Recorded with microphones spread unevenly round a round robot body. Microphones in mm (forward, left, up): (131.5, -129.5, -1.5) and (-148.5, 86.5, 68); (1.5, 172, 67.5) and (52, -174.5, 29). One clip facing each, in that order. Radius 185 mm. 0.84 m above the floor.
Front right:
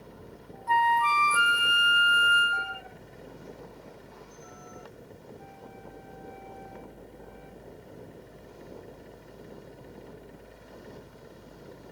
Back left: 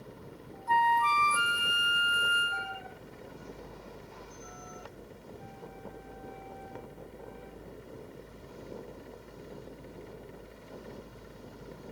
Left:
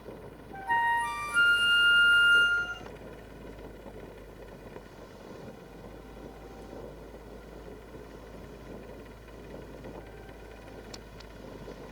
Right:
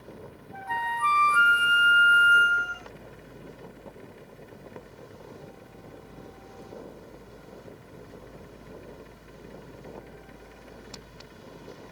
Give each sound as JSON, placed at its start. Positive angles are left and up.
{"t": 0.7, "sound": "a flute", "azimuth_deg": 5}